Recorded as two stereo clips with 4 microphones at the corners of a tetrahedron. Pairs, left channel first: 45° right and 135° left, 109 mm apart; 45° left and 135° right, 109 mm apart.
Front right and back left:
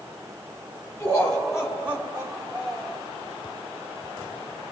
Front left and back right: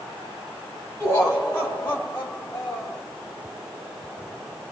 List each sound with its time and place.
1.0 s laughter: 5° right, 1.6 m; by 3.0 s 110° left, 2.5 m